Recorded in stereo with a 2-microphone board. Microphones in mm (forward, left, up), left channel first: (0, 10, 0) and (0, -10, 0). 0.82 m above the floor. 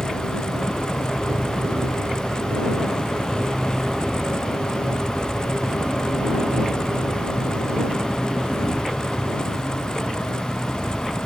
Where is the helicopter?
50° right (ahead or behind); by 11.3 s 60° right (ahead or behind).